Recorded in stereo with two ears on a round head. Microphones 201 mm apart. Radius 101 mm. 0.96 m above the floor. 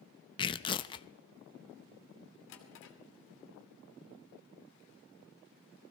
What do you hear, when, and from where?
0.4 s tearing paper: 20° left (ahead or behind), 0.6 m
2.5 s a drawer: 65° left (ahead or behind), 2.5 m